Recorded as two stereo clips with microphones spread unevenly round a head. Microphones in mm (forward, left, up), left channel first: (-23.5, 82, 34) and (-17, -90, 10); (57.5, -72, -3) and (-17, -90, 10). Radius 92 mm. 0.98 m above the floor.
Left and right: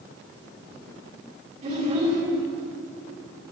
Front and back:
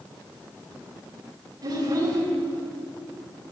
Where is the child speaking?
140° right, 7.5 m.